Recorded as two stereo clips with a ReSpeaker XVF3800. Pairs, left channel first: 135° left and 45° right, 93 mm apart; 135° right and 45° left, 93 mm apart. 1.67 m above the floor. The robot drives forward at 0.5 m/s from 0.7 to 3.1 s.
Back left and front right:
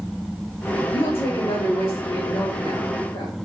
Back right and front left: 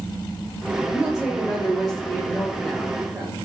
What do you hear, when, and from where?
0.9 s a woman speaking: 125° left, 1.6 m; by 3.4 s 145° left, 2.5 m